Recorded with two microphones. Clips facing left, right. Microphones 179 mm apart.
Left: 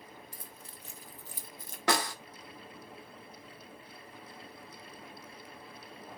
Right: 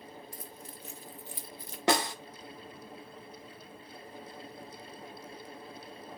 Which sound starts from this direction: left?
Keys jangling, at 0.3 s.